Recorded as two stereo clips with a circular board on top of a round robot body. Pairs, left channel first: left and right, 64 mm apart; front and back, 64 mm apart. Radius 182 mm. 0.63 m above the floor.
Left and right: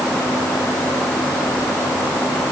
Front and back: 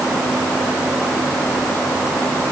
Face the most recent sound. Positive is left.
No sound to turn to.